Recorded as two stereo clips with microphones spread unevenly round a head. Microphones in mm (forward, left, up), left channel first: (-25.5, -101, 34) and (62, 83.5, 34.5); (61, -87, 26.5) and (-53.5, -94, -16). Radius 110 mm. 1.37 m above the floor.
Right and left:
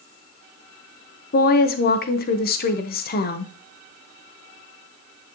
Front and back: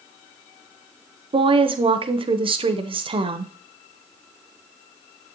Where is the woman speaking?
160° right, 0.8 m.